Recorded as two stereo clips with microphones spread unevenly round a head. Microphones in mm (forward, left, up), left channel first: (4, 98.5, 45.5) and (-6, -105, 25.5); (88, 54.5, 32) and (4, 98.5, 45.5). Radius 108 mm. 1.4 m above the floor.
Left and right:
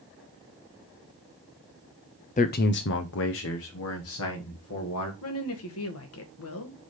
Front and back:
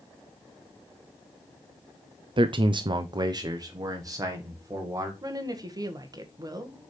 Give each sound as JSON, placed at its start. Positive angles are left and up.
{"t": 2.4, "sound": "a man speaking", "azimuth_deg": 135, "distance_m": 0.5}
{"t": 5.2, "sound": "a woman speaking", "azimuth_deg": 100, "distance_m": 1.6}